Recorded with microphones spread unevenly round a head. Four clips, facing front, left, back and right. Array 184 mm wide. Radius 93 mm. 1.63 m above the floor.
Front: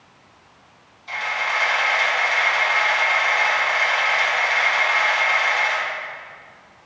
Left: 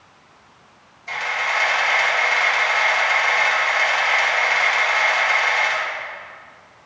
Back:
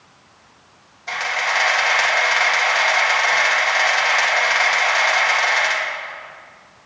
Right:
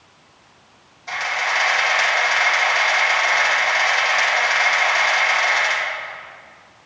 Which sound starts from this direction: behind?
A camera shutter, at 1.1 s.